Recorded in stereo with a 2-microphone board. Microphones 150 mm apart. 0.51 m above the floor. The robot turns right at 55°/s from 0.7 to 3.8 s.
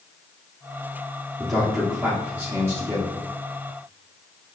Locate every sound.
1.4 s a man speaking: 5° left (ahead or behind), 1.1 m; by 3.1 s 20° right (ahead or behind), 1.1 m